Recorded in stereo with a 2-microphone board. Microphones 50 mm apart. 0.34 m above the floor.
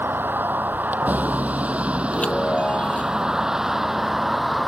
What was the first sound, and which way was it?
A vehicle, 40° right (ahead or behind).